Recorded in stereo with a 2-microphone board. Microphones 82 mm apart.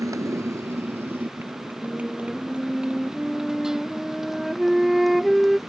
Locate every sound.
0.0 s a motorcycle: 45° right (ahead or behind); by 5.7 s centre (ahead or behind)
1.8 s a flute: 5° right (ahead or behind)